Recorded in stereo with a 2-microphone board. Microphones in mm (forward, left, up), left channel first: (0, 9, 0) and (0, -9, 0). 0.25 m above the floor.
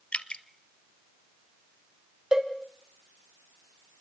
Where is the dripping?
80° left, 1.1 m.